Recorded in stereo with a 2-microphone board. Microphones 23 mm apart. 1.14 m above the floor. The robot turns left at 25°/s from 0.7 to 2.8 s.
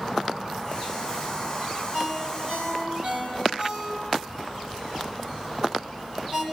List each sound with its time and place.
1.9 s a ringtone: 70° right (ahead or behind), 4 m; by 6.4 s 85° right, 4 m